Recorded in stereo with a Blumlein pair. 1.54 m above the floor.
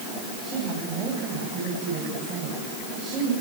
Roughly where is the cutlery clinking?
No cutlery clinking in this recording.